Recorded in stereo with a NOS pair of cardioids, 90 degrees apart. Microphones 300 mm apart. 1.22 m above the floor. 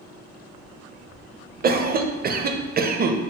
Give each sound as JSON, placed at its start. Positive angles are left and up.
{"t": 1.6, "sound": "a cough", "azimuth_deg": -30, "distance_m": 0.6}